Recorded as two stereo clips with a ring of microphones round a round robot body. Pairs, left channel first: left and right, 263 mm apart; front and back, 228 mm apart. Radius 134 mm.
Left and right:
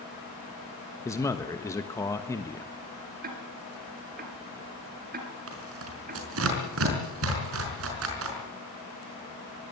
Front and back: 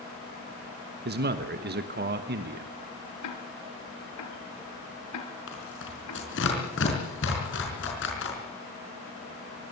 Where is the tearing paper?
50° right, 5 m.